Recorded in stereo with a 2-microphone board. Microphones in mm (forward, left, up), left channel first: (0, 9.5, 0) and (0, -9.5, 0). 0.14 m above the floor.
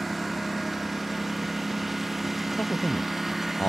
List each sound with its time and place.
0.0 s a lawn mower: 5° right (ahead or behind); by 3.7 s 10° right (ahead or behind)
2.6 s a man speaking: 65° left (ahead or behind)